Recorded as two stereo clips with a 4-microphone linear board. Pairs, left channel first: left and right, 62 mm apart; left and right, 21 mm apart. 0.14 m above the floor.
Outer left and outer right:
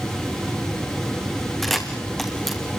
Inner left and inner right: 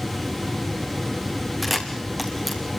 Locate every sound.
1.6 s a camera shutter: 5° left (ahead or behind), 3 m